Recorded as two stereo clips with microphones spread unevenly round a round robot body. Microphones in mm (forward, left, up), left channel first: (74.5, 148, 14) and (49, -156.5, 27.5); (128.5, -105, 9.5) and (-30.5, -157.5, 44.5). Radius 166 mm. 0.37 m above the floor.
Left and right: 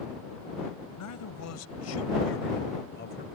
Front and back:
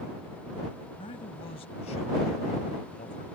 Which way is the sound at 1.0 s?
75° left.